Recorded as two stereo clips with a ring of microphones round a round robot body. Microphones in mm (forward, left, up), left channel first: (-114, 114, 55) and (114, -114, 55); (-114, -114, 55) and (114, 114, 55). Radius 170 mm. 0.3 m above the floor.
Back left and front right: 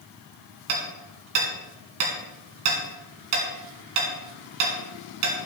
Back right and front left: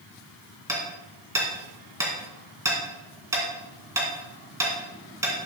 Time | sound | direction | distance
0.7 | hammering | 35° right | 3 m